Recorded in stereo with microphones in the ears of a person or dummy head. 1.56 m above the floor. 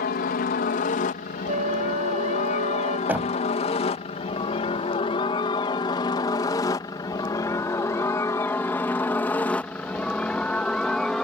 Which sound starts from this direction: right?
A flute, at 1.5 s.